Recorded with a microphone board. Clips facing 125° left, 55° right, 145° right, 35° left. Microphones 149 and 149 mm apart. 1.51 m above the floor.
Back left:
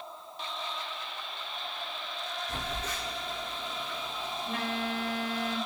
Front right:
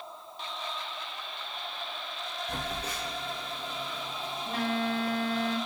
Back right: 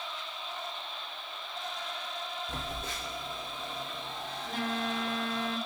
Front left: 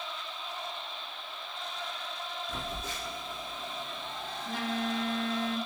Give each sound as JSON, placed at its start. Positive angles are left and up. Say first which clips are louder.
{"t": 2.5, "sound": "a phone buzzing", "louder": "front right 3 dB, even", "azimuth_deg": -115, "distance_m": 1.1}